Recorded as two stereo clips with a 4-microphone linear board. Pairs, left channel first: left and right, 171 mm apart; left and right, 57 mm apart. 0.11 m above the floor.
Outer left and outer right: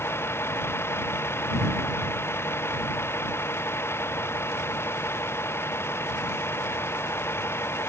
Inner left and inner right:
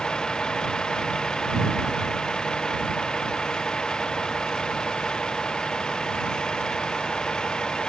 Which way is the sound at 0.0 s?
15° left (ahead or behind).